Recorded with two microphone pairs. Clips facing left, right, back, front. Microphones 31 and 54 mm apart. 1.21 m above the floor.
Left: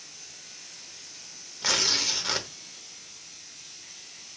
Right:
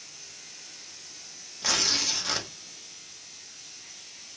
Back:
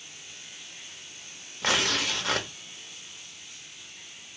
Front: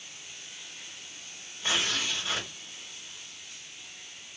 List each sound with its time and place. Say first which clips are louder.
1.6 s tearing paper: left 1 dB, back 3 dB; 165° left, 0.7 m